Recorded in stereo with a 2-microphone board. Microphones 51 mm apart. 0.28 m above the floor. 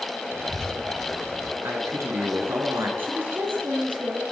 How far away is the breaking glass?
I don't hear breaking glass.